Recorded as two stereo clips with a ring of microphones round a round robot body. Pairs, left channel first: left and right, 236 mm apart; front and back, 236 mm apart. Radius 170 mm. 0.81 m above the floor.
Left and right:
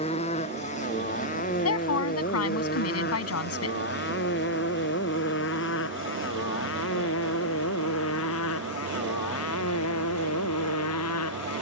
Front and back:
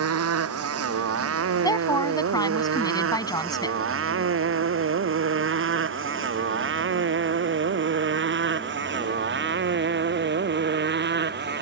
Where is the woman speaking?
75° left.